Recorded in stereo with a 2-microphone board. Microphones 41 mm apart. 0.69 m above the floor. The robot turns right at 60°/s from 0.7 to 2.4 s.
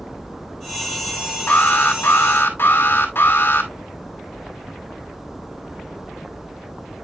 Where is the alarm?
55° left, 2 m; by 3.7 s 110° left, 2 m.